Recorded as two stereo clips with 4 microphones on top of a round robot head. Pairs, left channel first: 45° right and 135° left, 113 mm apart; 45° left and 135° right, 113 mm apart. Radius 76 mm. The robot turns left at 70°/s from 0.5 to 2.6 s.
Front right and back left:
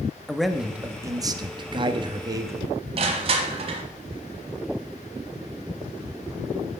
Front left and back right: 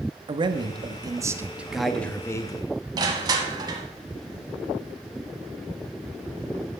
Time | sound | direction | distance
0.3 | a man speaking | 135° right | 0.8 m
3.0 | crushing | 170° left | 1.1 m